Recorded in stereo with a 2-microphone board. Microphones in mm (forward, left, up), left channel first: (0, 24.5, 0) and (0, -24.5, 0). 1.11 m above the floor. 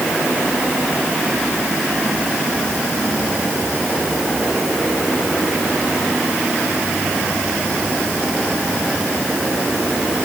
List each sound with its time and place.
Only background noise.